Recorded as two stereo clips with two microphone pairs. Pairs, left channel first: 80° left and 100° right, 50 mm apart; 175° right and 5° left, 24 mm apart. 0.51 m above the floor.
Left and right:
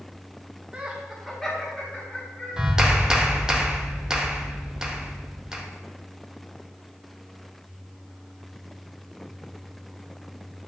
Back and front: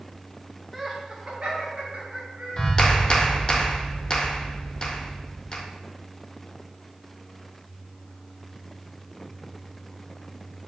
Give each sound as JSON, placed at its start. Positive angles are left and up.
{"t": 0.7, "sound": "laughter", "azimuth_deg": -70, "distance_m": 0.7}
{"t": 2.6, "sound": "a clap", "azimuth_deg": -170, "distance_m": 0.6}